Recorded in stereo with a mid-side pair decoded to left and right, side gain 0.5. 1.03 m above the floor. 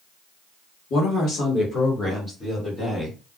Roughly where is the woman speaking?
Ahead left.